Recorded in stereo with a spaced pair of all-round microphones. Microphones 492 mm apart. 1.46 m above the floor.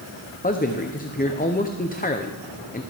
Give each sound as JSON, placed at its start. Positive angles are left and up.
{"t": 0.4, "sound": "a man speaking", "side_deg": 20, "distance_m": 0.6}